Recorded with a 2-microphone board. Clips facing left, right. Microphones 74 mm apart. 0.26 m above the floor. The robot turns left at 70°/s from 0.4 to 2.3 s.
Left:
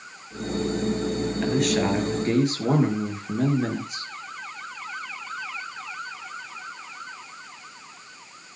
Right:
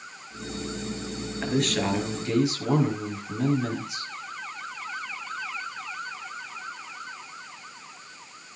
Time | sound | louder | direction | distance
1.4 | a man speaking | left 2 dB | 170° right | 4.5 m